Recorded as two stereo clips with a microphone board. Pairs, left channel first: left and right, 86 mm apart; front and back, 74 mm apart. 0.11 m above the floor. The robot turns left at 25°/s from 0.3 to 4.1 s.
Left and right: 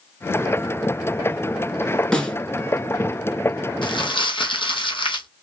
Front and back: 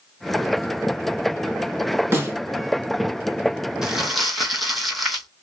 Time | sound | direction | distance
2.1 | a snare drum | 165° left | 0.9 m
3.8 | crumpling | 100° left | 0.8 m